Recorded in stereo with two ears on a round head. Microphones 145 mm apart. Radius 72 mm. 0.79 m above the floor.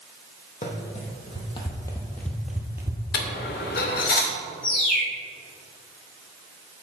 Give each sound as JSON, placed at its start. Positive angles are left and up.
{"t": 0.6, "sound": "running footsteps", "side_deg": 45, "distance_m": 1.7}
{"t": 3.1, "sound": "a dropped coin", "side_deg": 70, "distance_m": 0.9}
{"t": 4.6, "sound": "a bird", "side_deg": 60, "distance_m": 2.5}